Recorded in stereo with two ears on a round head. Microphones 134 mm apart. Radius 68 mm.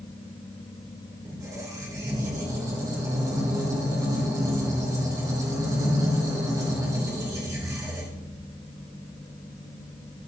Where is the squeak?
25° right (ahead or behind), 3 m.